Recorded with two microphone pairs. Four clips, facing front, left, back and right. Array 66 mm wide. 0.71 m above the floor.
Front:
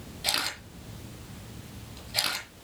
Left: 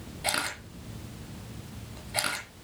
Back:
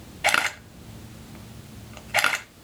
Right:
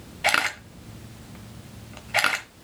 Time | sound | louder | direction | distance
0.2 | a camera shutter | right 9 dB, back 11 dB | 130° right | 1.2 m